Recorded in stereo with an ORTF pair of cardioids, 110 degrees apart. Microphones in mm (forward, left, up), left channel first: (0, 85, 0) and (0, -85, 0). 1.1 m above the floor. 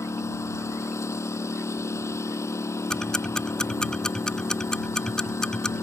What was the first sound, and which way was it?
A lawn mower, 15° left.